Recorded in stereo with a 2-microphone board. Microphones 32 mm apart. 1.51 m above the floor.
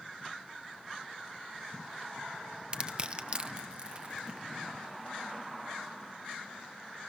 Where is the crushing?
30° right (ahead or behind), 0.8 m.